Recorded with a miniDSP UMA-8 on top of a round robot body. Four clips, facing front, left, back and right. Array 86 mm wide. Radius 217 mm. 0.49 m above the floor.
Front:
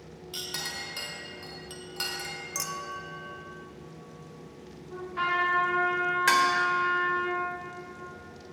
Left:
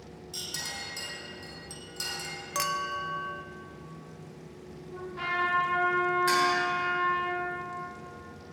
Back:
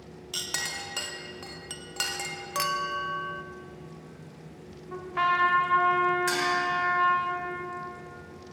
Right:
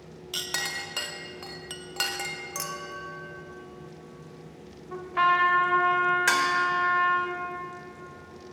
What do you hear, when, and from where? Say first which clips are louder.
0.3 s a clink: right 8 dB, back 2 dB; 110° right, 1.2 m
2.5 s a clink: left 8 dB, back 9 dB; 150° left, 0.8 m
4.9 s a trumpet: right 10 dB, back 3 dB; 110° right, 1.8 m
6.3 s dishes clattering: right 1 dB, front 6 dB; 50° right, 1.7 m